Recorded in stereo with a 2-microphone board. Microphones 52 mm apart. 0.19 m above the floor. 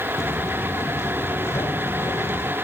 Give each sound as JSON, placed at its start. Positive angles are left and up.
{"t": 0.2, "sound": "footsteps", "side_deg": 60}